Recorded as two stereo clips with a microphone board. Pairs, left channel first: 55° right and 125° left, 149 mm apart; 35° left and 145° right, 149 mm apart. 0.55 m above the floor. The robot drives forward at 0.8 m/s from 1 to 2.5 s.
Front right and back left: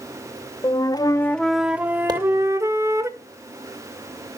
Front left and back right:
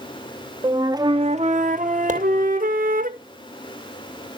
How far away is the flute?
About 0.6 m.